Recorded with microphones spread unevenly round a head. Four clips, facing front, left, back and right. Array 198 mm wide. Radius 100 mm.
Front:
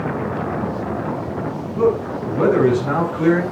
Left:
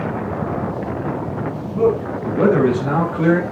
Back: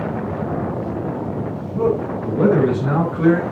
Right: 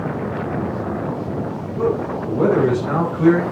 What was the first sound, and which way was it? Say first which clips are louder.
A man speaking: left 3 dB, front 1 dB; 120° left.